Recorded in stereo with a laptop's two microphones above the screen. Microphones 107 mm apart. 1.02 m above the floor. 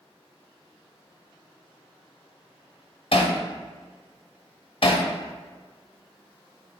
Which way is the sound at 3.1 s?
55° left (ahead or behind).